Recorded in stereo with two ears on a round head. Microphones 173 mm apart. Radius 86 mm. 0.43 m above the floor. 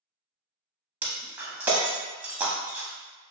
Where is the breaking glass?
10° right (ahead or behind), 0.6 m.